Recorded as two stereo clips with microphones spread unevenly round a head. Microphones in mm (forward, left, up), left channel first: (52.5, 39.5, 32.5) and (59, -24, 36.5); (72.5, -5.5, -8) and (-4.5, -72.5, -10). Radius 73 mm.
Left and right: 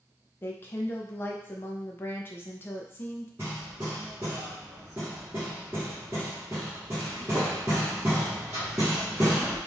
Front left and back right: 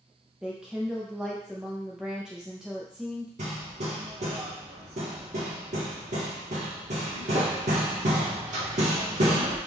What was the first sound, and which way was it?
A woman speaking, 140° left.